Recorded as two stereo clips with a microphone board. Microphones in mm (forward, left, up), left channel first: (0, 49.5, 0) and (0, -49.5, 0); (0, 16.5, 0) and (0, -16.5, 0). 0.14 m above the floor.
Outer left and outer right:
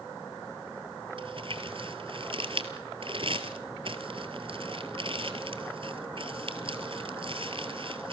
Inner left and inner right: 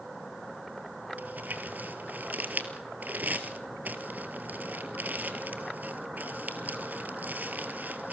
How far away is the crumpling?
About 1.6 m.